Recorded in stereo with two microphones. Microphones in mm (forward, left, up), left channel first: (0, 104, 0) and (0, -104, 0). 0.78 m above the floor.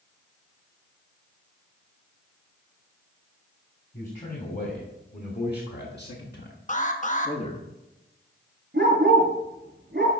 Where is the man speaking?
45° left (ahead or behind), 2.5 m; by 7.6 s 25° left (ahead or behind), 1.3 m.